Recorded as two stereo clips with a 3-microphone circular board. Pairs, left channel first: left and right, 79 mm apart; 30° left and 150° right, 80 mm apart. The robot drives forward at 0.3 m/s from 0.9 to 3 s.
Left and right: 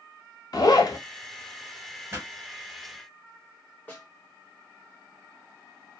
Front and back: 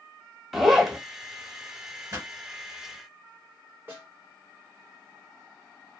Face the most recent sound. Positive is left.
turn(degrees=155)